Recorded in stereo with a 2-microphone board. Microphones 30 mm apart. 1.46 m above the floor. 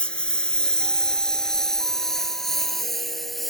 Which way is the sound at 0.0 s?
35° left (ahead or behind).